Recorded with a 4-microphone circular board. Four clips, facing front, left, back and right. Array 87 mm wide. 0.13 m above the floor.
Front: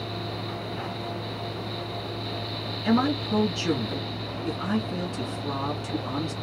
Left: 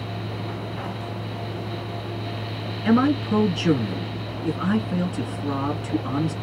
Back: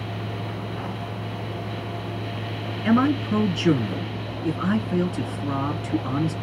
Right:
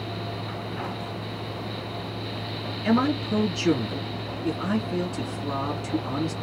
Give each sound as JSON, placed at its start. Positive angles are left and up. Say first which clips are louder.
{"t": 2.8, "sound": "a man speaking", "louder": "left 4 dB, back 4 dB", "azimuth_deg": 145, "distance_m": 1.6}